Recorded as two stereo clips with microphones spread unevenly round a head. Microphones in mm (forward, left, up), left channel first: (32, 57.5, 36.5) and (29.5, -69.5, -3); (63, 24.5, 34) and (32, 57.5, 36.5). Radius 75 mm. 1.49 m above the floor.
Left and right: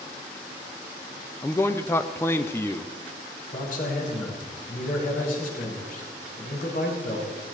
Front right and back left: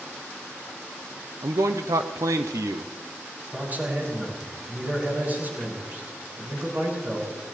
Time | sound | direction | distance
1.4 | a man speaking | 165° left | 0.7 m
3.5 | a man speaking | 80° left | 7 m